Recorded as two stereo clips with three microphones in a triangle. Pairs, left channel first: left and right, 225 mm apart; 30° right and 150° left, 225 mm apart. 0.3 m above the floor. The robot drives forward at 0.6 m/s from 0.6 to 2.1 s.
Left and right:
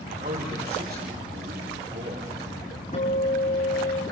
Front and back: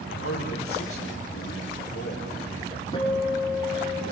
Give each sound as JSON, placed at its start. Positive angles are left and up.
{"t": 0.1, "sound": "a man speaking", "azimuth_deg": -40, "distance_m": 7.5}
{"t": 2.9, "sound": "a guitar", "azimuth_deg": 35, "distance_m": 8.5}